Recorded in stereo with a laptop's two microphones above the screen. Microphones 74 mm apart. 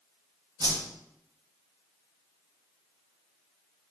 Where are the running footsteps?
No running footsteps in this recording.